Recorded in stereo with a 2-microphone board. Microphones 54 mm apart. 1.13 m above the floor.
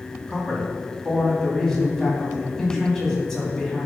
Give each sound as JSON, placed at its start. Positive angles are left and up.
{"t": 0.3, "sound": "a man speaking", "side_deg": 5, "distance_m": 2.5}